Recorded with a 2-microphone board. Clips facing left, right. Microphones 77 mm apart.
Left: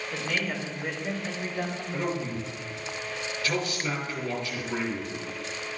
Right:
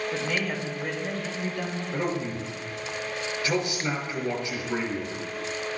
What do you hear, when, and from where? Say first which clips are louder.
0.1 s a woman speaking: right 2 dB; 15° right (ahead or behind), 2 m; by 1.8 s 35° left (ahead or behind), 3 m
1.9 s a man speaking: right 2 dB; 20° right (ahead or behind), 5 m